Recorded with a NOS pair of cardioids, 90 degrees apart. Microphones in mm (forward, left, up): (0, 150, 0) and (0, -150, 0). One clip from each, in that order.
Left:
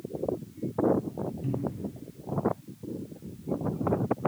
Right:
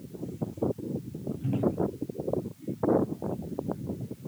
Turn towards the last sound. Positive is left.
turn(degrees=0)